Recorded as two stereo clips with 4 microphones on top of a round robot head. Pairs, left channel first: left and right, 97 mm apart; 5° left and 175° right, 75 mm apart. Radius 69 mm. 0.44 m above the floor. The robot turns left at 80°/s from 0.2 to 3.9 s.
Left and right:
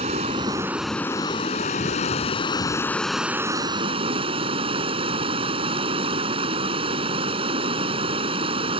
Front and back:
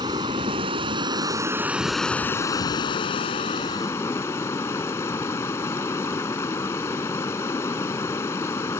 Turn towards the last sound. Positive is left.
turn(degrees=-65)